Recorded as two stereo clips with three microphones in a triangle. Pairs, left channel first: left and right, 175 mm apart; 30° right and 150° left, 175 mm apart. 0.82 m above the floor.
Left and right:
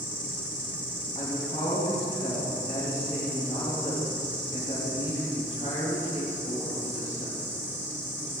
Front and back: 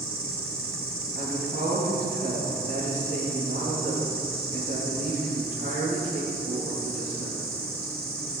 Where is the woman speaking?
140° left, 6 m.